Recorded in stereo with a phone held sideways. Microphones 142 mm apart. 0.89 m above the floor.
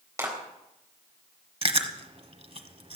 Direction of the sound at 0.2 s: 20° right (ahead or behind).